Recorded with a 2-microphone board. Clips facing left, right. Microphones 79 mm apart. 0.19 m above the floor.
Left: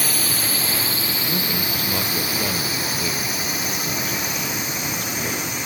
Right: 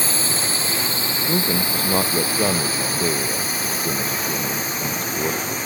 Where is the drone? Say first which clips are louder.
Right 1 dB; 25° right (ahead or behind); by 5.7 s 35° right (ahead or behind).